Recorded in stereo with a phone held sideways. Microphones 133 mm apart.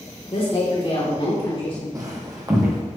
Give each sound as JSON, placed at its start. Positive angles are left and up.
{"t": 0.3, "sound": "a woman speaking", "side_deg": 50, "distance_m": 2.5}
{"t": 1.9, "sound": "footsteps", "side_deg": -30, "distance_m": 2.0}